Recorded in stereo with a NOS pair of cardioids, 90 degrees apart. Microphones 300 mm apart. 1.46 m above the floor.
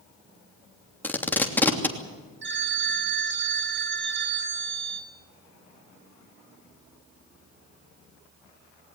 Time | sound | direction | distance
1.0 | tape being pulled | 5° left | 3 m
2.4 | a phone ringing | 40° right | 3.5 m